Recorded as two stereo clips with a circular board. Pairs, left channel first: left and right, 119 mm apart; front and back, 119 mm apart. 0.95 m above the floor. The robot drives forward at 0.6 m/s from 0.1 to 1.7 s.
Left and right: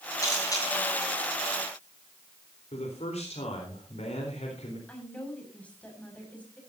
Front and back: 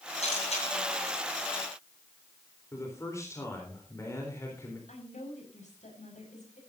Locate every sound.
0.2 s a camera shutter: 25° left, 8.5 m
2.7 s a man speaking: 65° left, 4 m
4.9 s a woman speaking: 10° left, 6 m